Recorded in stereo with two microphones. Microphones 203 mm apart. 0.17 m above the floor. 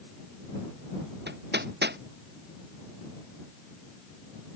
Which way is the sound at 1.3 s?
55° right (ahead or behind).